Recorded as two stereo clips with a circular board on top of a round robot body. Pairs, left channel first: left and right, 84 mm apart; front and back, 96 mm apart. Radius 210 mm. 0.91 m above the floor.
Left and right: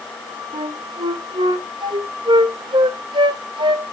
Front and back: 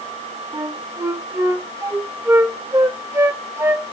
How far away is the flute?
About 1.4 m.